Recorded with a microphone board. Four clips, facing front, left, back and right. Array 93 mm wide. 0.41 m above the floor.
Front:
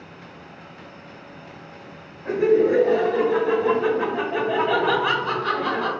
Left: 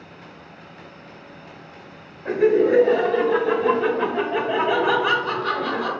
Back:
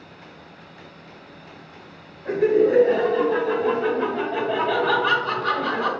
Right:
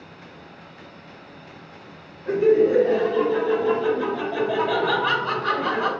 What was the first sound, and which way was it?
Laughter, 75° left.